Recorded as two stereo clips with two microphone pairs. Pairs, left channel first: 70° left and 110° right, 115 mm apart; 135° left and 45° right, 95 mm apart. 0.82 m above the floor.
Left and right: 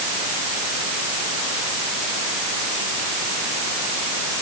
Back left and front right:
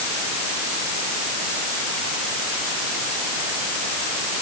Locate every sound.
Only background noise.